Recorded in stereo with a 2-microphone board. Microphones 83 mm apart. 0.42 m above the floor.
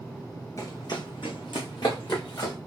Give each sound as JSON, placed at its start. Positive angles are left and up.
{"t": 0.6, "sound": "running footsteps", "side_deg": 40, "distance_m": 1.5}